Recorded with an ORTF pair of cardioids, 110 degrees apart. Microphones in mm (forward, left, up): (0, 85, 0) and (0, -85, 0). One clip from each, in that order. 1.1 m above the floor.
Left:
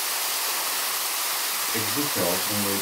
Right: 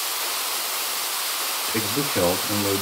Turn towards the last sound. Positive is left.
turn(degrees=-40)